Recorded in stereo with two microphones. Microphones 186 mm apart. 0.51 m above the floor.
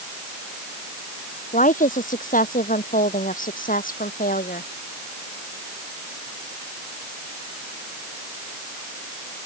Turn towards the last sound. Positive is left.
turn(degrees=50)  # may be behind; listen again after turning